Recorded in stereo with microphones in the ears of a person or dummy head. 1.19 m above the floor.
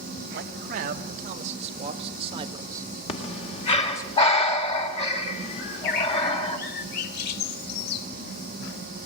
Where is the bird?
55° left (ahead or behind), 2.5 m.